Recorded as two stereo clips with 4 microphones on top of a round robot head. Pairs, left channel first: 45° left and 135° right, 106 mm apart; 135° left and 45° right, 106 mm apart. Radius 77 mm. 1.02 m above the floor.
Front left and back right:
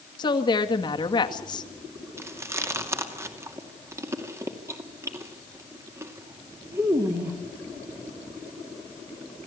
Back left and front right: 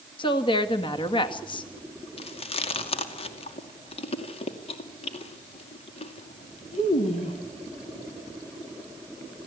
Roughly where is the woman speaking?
Left.